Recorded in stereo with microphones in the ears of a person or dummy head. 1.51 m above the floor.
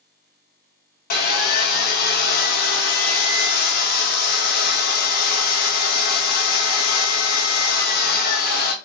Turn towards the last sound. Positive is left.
turn(degrees=50)  # may be behind; listen again after turning